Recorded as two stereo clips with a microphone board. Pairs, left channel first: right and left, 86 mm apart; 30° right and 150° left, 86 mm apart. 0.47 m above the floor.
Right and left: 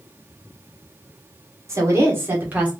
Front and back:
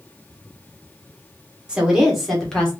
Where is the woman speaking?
85° left, 1.4 m; by 2.7 s 35° left, 1.3 m.